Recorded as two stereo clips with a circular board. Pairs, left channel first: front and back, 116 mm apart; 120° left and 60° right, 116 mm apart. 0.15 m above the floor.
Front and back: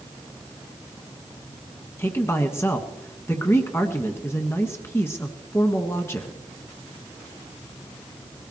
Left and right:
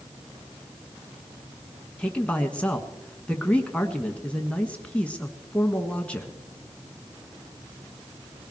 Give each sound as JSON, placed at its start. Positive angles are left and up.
{"t": 2.0, "sound": "a man speaking", "azimuth_deg": 50, "distance_m": 1.3}